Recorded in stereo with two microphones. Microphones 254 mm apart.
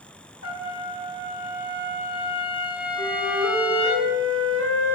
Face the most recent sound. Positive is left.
turn(degrees=70)  # may be behind; listen again after turning